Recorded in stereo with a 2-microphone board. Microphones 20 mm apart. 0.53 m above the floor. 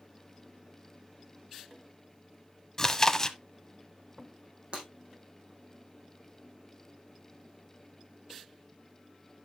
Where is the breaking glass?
65° right (ahead or behind), 4.5 m.